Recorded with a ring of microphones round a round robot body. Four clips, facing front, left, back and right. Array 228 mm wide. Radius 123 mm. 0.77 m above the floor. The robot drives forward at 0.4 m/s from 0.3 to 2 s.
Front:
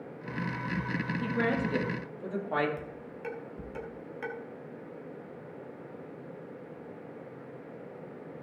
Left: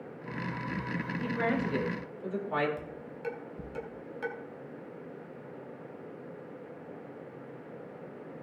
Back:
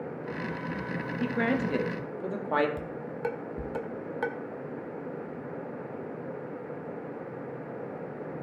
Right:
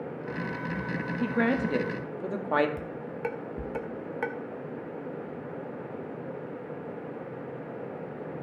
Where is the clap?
I don't hear a clap.